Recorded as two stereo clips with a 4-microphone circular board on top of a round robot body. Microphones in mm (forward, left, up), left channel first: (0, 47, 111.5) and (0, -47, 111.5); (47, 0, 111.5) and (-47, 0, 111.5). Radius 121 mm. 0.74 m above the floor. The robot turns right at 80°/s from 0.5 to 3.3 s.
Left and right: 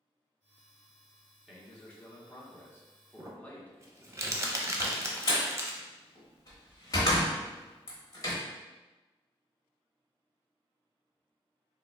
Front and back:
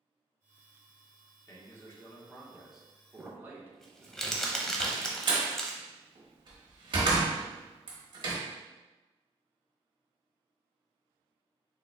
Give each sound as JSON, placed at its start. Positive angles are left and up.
{"t": 1.5, "sound": "a man speaking", "azimuth_deg": -5, "distance_m": 1.1}
{"t": 3.2, "sound": "crumpling", "azimuth_deg": -90, "distance_m": 0.9}
{"t": 4.8, "sound": "a door slam", "azimuth_deg": 140, "distance_m": 1.1}